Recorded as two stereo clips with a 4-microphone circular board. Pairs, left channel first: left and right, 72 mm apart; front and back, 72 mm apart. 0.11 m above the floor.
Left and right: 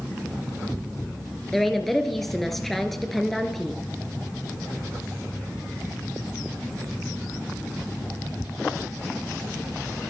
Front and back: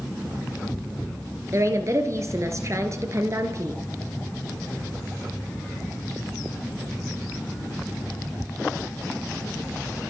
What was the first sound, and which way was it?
A woman speaking, 175° left.